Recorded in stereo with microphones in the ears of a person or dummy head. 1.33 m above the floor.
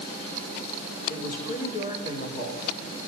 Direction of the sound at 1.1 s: 55° left (ahead or behind).